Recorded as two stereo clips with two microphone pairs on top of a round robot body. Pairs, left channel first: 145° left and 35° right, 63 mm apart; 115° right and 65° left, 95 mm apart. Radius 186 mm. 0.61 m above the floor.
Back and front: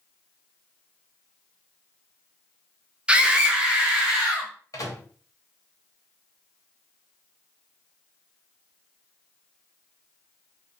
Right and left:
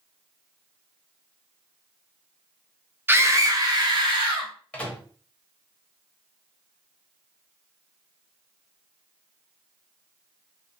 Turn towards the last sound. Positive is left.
turn(degrees=170)